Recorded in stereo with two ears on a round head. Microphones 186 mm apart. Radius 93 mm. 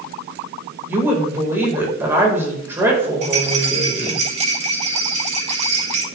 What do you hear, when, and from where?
0.9 s a woman speaking: 10° right (ahead or behind), 4.5 m
3.2 s a rattle: 35° right (ahead or behind), 3 m